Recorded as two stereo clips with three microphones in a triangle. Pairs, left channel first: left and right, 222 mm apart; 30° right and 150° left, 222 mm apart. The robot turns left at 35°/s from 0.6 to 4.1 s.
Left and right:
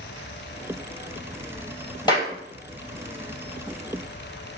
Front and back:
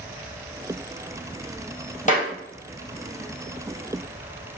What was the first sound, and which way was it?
A clap, 20° left.